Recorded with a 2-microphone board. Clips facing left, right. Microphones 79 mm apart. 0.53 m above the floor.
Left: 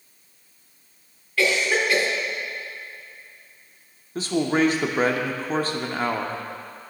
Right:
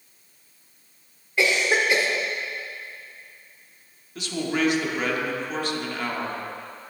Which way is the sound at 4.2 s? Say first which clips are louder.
Left 5 dB; 30° left (ahead or behind).